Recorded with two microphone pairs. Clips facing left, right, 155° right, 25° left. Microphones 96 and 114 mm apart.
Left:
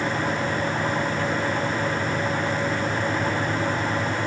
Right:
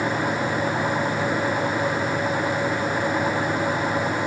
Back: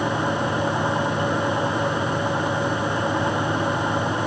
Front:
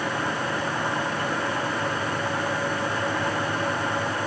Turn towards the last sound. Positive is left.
No sound to turn to.